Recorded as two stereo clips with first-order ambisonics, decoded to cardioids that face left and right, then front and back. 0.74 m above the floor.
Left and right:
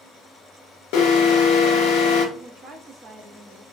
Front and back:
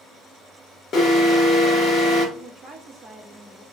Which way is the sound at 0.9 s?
65° left.